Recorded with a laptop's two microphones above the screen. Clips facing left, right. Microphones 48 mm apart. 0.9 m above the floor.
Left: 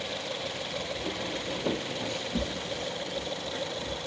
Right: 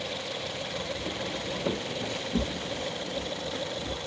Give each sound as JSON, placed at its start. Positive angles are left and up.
{"t": 1.0, "sound": "footsteps", "side_deg": 25, "distance_m": 1.3}